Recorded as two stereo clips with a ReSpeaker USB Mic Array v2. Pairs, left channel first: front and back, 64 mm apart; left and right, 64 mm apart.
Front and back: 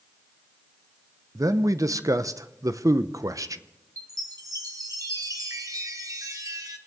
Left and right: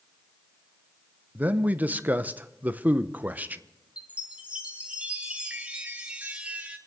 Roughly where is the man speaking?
Behind right.